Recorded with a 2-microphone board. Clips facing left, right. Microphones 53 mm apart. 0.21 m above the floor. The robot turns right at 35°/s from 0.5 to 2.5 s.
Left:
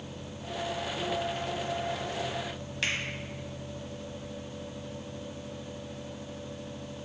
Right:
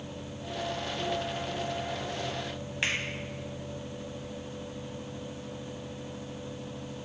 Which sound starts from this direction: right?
A finger snap, at 2.8 s.